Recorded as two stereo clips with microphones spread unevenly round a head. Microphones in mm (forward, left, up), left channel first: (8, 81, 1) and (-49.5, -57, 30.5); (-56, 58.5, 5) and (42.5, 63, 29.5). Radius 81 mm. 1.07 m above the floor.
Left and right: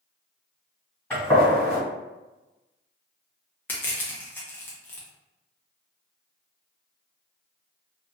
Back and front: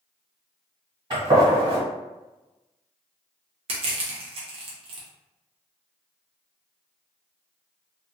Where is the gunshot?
15° right, 1.5 m.